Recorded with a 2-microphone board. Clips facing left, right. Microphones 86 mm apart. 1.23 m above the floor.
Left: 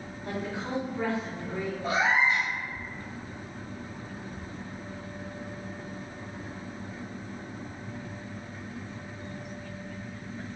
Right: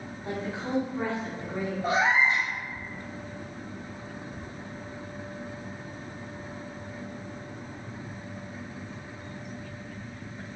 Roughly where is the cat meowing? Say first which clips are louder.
Right 1 dB; right.